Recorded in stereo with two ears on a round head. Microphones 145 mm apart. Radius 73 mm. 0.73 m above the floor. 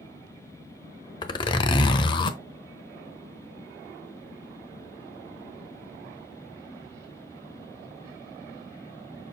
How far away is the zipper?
About 0.9 m.